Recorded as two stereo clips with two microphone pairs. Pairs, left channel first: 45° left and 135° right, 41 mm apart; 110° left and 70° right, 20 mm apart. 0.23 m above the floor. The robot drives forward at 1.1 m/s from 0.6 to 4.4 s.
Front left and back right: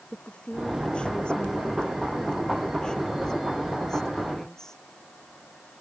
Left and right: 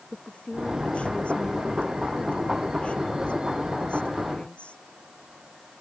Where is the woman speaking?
110° left; by 4.8 s 120° left.